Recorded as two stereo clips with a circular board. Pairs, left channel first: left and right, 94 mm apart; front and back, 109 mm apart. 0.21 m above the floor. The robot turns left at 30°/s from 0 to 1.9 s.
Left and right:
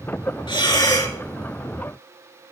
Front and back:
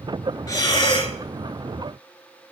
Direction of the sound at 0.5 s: 55° left.